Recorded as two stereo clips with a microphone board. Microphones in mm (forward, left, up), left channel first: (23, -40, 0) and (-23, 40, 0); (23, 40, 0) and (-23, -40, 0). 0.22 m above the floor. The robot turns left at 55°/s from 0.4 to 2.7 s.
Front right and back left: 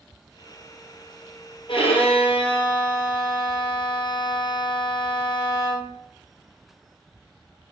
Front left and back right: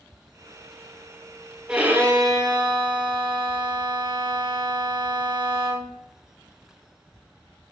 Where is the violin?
40° right, 2 m; by 5.9 s 100° right, 2 m.